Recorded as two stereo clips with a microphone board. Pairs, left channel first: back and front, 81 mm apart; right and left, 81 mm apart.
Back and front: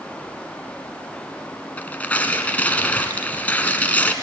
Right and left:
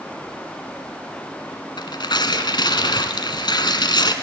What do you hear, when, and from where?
1.8 s tearing paper: 110° right, 1.4 m